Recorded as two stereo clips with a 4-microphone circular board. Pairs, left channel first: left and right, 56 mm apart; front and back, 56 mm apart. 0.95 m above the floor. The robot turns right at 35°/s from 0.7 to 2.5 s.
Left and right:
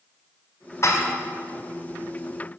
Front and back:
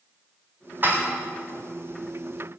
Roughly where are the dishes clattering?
Behind left.